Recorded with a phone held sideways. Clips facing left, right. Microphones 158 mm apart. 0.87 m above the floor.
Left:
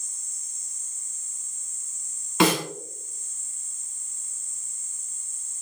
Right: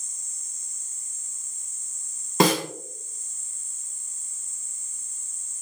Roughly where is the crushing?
No crushing in this recording.